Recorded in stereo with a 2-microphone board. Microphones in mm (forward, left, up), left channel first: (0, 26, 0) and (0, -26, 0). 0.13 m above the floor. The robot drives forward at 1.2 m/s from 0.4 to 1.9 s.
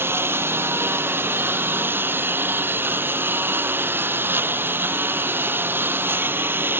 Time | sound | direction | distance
0.0 | a lawn mower | 50° right (ahead or behind) | ?